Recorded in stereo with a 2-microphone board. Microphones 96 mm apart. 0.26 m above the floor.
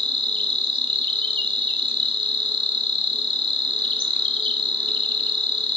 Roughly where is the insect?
Right.